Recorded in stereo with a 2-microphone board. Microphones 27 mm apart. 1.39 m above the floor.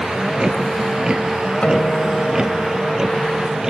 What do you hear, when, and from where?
0.0 s a vehicle: 40° right (ahead or behind); by 3.7 s 25° right (ahead or behind)
1.6 s a guitar: 55° left (ahead or behind)